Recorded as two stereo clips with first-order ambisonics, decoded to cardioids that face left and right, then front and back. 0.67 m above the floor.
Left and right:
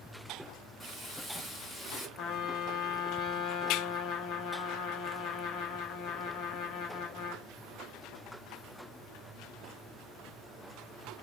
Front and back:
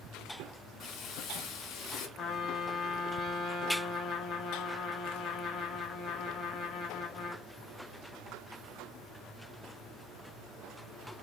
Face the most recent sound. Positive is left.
turn(degrees=55)